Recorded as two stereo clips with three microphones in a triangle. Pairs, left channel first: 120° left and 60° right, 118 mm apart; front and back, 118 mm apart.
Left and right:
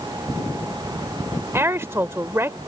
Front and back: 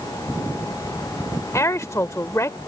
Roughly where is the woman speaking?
Ahead right.